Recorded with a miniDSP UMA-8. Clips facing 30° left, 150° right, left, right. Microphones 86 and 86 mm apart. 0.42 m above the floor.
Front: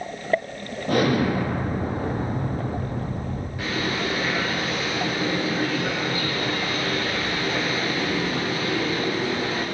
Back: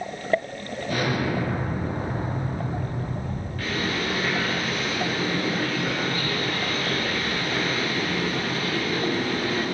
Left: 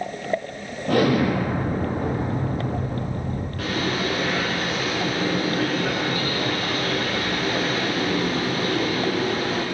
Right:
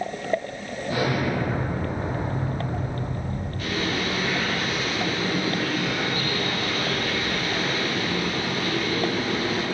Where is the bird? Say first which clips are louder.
Front 1 dB, left 2 dB; 110° left, 9.5 m.